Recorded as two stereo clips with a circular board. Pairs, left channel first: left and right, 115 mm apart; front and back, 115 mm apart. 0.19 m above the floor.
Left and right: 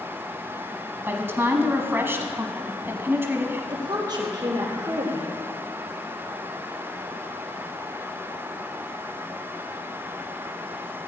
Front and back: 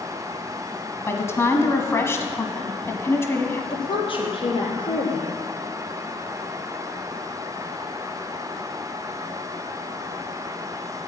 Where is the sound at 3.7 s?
40° right, 4 m.